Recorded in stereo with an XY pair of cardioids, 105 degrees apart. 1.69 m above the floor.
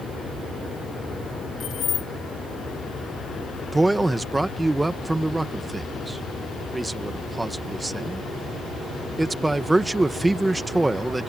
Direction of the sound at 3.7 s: 10° right.